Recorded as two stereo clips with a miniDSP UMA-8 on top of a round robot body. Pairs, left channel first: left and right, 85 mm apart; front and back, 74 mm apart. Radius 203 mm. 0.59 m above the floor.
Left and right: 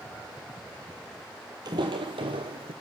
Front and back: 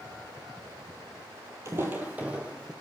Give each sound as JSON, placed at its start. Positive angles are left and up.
{"t": 1.6, "sound": "footsteps", "azimuth_deg": -130, "distance_m": 0.7}